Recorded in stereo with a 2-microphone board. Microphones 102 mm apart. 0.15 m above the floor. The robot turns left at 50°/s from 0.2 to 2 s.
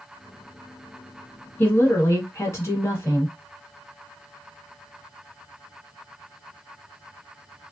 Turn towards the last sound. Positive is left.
turn(degrees=30)  # may be behind; listen again after turning